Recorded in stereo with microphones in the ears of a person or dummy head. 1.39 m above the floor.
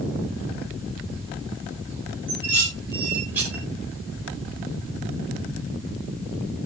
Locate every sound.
2.3 s dishes clattering: 15° right (ahead or behind), 4.5 m